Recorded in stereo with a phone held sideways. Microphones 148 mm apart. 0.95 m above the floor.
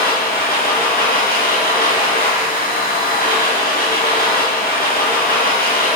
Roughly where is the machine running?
Left.